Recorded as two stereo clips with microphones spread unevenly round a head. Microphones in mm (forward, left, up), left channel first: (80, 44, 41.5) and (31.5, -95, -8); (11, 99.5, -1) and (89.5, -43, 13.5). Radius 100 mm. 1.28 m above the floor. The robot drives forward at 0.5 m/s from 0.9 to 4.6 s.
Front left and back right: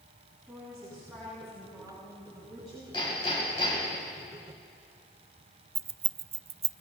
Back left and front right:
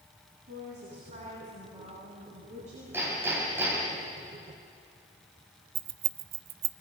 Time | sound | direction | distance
0.5 | a woman speaking | 15° right | 10 m
2.9 | hammering | 15° left | 8 m
5.8 | keys jangling | 50° right | 0.7 m